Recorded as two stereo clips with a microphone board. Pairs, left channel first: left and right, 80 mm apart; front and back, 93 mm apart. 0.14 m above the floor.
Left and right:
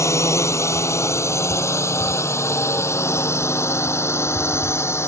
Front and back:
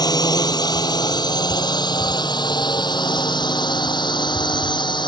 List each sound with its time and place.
0.0 s a drone: 40° left; by 5.1 s 35° left